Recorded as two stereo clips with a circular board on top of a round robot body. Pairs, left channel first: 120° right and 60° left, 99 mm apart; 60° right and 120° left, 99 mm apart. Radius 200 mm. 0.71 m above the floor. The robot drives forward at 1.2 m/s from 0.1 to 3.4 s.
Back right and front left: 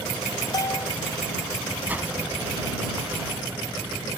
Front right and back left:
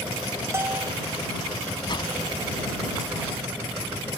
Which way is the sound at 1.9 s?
15° right.